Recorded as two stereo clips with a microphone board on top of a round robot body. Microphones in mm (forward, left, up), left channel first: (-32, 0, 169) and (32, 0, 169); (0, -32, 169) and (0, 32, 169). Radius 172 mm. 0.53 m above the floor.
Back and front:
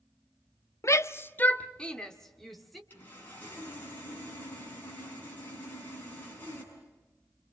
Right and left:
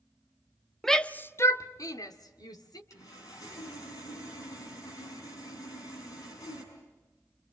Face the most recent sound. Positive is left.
turn(degrees=-115)